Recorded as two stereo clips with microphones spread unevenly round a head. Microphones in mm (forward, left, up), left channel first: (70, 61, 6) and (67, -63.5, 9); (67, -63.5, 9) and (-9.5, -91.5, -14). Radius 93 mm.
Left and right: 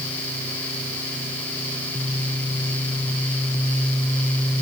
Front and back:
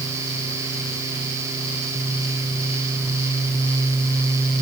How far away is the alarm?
No alarm in this recording.